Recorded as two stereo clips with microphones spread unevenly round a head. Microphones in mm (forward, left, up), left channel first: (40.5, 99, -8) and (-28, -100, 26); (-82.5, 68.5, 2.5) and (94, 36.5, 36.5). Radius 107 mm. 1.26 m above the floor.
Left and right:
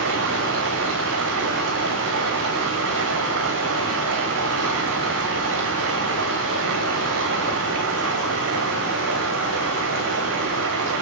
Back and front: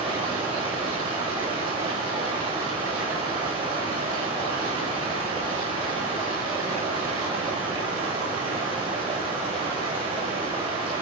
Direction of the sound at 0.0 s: 80° right.